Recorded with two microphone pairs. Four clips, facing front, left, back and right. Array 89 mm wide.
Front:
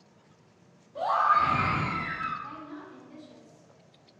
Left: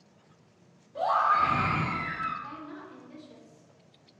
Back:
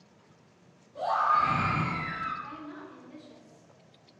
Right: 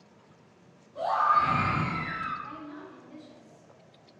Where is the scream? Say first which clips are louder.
Even, front 2 dB; 70° left, 1.8 m; by 2.3 s 10° right, 1.2 m.